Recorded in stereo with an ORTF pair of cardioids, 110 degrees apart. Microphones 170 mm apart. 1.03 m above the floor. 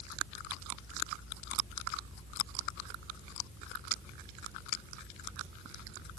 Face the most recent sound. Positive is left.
No sound to turn to.